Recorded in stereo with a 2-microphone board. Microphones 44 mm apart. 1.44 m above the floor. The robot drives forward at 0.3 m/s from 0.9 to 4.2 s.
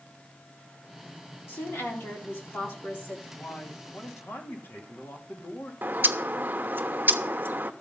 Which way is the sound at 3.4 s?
60° left (ahead or behind).